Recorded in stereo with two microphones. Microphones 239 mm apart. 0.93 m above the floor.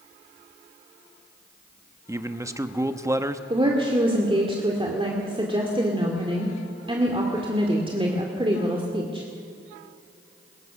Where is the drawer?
No drawer in this recording.